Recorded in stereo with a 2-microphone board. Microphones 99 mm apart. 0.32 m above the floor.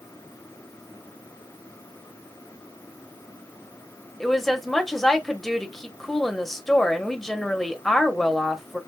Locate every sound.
4.2 s a woman speaking: 5° left (ahead or behind), 1.0 m